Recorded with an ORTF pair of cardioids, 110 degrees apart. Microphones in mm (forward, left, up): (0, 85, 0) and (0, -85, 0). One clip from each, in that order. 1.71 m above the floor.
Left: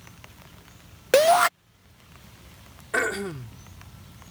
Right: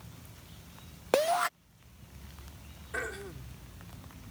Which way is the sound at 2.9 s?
65° left.